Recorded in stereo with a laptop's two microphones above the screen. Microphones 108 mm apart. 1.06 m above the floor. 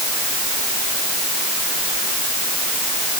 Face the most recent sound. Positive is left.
No sound to turn to.